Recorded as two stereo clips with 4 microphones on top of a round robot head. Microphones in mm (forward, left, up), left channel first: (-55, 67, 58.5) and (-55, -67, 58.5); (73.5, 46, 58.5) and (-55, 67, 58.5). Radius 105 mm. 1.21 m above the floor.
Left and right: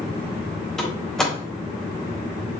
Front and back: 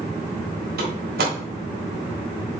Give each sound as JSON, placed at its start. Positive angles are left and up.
{"t": 0.8, "sound": "a door slam", "azimuth_deg": 175, "distance_m": 3.5}